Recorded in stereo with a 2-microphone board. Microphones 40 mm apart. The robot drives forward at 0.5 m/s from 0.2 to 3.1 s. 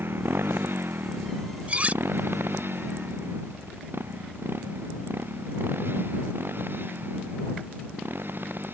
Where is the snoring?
I don't hear snoring.